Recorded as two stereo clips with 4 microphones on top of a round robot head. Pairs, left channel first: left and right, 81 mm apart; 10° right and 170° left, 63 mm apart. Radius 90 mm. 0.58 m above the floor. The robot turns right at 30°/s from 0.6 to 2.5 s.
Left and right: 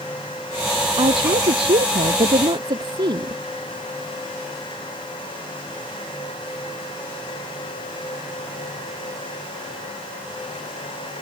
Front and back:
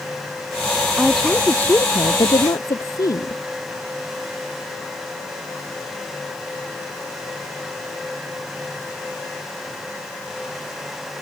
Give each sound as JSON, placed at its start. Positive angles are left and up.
{"t": 1.0, "sound": "a woman speaking", "azimuth_deg": -100}